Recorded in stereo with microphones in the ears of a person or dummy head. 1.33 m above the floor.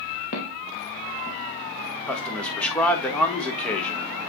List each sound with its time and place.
0.3 s footsteps: 40° left (ahead or behind), 2 m; by 1.4 s 25° left (ahead or behind), 2 m
2.1 s a man speaking: 5° left (ahead or behind), 1.4 m